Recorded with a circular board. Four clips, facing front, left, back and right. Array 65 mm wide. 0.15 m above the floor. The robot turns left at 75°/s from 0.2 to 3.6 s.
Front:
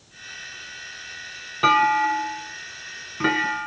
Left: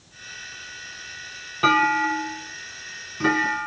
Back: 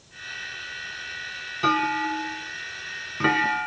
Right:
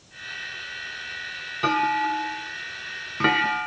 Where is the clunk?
30° left, 1.4 m; by 3.7 s 120° right, 1.4 m.